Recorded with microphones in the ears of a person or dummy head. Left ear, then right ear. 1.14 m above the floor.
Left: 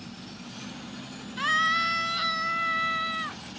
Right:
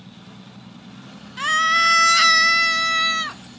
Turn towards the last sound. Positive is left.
turn(degrees=-80)